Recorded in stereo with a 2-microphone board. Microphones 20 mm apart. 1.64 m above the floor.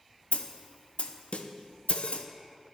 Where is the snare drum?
80° left, 1.1 m.